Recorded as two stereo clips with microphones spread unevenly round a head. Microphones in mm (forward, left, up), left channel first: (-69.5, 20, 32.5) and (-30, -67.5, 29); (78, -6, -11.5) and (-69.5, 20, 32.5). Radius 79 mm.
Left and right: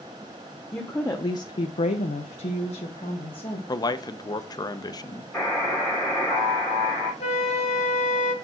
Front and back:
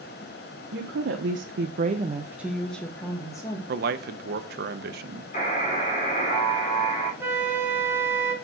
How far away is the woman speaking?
About 1.1 m.